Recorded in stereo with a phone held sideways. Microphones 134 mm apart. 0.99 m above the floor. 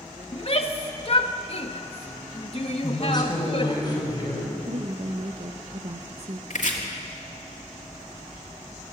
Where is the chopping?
65° left (ahead or behind), 2.5 m.